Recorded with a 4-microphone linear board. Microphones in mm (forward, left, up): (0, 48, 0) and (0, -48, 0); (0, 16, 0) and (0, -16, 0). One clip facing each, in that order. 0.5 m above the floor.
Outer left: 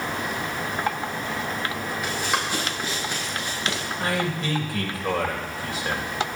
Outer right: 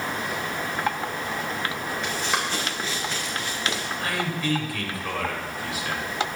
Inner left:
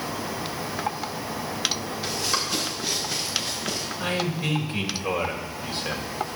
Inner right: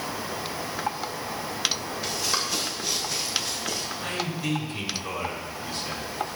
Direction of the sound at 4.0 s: 30° left (ahead or behind).